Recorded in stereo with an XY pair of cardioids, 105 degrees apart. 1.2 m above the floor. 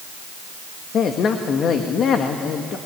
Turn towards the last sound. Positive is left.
turn(degrees=60)